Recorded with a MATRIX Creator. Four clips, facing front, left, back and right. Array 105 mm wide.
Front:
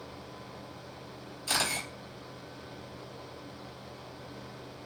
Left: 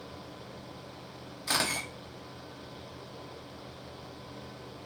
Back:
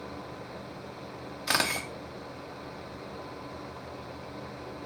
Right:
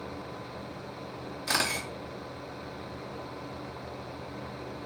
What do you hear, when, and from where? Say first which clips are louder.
1.5 s a camera shutter: right 1 dB, back 4 dB; 175° right, 0.7 m